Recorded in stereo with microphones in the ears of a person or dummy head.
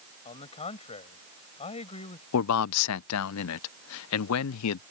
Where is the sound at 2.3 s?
80° left.